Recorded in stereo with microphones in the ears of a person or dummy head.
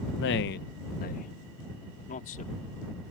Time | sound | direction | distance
0.2 | a man speaking | 65° left (ahead or behind) | ?